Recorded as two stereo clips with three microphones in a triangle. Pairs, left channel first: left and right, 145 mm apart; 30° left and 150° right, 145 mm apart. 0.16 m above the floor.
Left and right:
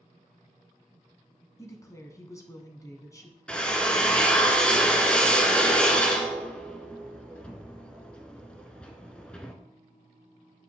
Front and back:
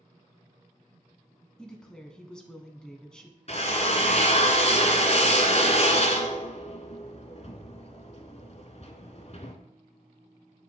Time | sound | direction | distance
1.6 | a woman speaking | 105° left | 1.1 m
3.5 | a drill | 10° left | 0.9 m